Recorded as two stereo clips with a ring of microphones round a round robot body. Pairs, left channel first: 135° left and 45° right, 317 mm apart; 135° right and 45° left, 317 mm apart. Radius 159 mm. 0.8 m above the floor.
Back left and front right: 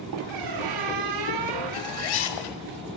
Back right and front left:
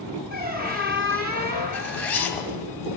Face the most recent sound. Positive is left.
turn(degrees=140)